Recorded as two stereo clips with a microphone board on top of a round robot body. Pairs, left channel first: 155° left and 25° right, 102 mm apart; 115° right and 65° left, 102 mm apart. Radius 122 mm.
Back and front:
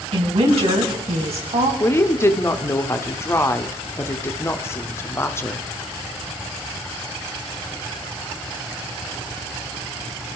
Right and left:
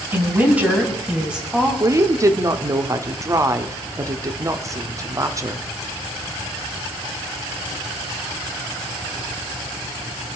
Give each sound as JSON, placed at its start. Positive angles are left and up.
{"t": 0.1, "sound": "a woman speaking", "azimuth_deg": 0, "distance_m": 3.0}
{"t": 1.8, "sound": "a woman speaking", "azimuth_deg": 105, "distance_m": 1.3}